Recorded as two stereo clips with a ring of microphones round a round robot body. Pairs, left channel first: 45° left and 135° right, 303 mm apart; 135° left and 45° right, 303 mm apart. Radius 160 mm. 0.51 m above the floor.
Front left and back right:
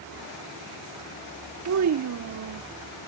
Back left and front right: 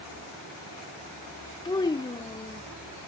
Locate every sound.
1.6 s a child speaking: 150° right